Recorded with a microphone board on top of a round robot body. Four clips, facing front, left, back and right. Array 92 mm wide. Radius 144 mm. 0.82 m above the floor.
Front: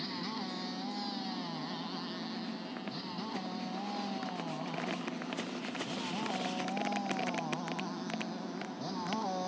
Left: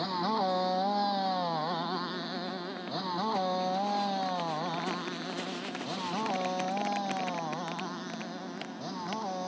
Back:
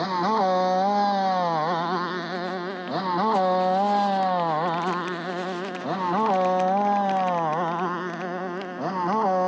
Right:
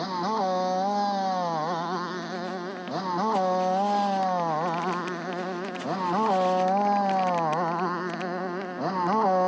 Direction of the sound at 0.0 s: 170° right.